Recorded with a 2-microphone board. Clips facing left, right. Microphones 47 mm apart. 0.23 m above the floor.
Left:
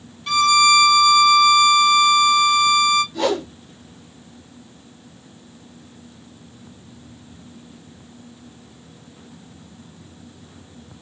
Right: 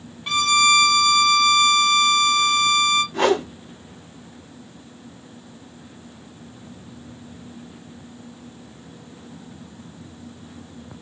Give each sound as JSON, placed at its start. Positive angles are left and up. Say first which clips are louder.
{"t": 0.3, "sound": "a violin", "louder": "left 3 dB", "side_deg": -20, "distance_m": 1.7}
{"t": 3.1, "sound": "a whoosh", "louder": "right 2 dB", "side_deg": -40, "distance_m": 0.9}